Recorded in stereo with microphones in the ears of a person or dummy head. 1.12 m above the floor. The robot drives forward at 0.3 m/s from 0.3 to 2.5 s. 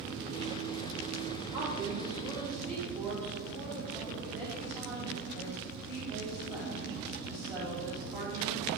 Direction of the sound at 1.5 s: 15° right (ahead or behind).